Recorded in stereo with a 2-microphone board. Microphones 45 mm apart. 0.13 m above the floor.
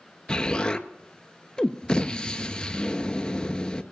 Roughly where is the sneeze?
I don't hear a sneeze.